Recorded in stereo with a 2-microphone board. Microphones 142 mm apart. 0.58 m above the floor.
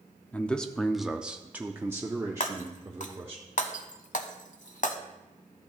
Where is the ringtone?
I don't hear a ringtone.